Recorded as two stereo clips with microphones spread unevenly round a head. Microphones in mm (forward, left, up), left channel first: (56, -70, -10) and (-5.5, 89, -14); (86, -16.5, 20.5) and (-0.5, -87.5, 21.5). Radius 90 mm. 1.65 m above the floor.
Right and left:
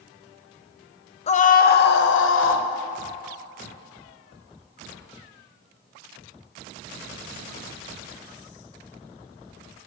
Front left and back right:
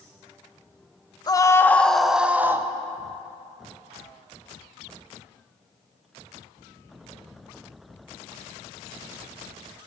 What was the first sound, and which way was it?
A scream, 15° right.